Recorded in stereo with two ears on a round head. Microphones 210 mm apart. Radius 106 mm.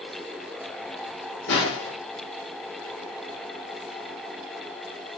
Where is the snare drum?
50° left (ahead or behind), 0.9 m.